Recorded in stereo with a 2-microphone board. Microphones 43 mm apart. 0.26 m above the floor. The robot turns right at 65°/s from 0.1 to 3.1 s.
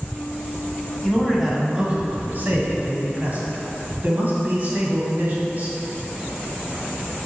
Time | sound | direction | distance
1.0 | a man speaking | 170° left | 1.6 m